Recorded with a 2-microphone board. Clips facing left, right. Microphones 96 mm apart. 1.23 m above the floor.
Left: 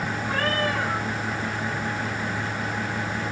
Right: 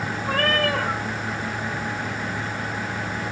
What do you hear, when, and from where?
0.3 s a cat meowing: 80° right, 2.5 m